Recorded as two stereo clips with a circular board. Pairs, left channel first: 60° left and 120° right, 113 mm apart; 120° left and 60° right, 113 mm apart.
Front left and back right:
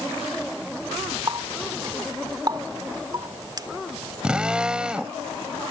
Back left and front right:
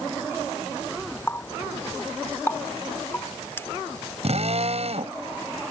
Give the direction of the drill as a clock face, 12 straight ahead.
1 o'clock.